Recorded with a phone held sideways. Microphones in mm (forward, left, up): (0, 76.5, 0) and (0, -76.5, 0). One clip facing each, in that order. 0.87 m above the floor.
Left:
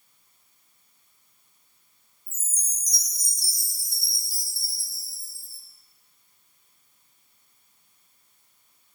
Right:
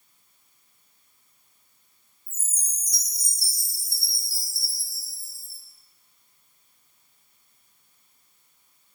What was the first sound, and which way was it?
A chime, 10° right (ahead or behind).